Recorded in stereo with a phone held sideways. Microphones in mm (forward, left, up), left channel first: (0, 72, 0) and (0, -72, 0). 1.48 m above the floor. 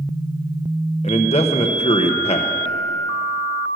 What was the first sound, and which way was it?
A man speaking, 45° left (ahead or behind).